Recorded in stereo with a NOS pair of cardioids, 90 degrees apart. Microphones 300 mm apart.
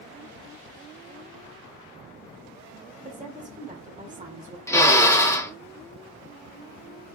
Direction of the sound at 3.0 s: 25° right.